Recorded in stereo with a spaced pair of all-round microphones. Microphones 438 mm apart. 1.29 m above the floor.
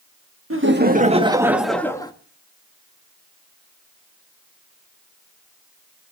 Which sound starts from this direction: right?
Laughter, at 0.5 s.